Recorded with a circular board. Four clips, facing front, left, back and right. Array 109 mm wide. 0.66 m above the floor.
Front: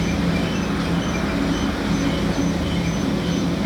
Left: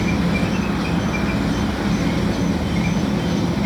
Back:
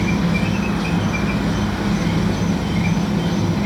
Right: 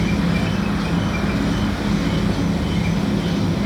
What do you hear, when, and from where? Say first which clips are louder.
0.0 s an insect: even, back 2 dB; 150° left, 1.8 m